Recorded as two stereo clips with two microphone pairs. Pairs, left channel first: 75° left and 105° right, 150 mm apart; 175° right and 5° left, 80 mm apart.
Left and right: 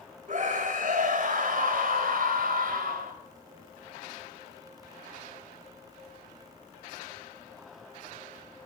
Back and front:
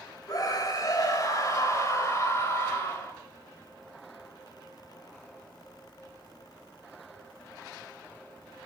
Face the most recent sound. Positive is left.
turn(degrees=-115)